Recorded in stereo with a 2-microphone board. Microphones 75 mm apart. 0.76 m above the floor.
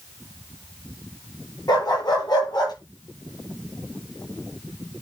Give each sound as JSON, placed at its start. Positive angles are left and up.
{"t": 1.7, "sound": "a dog barking", "side_deg": 60, "distance_m": 8.5}